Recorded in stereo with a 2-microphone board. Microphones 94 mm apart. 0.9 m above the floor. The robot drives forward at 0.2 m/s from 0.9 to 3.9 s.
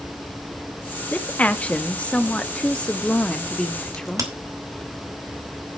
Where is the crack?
35° right (ahead or behind), 3 m.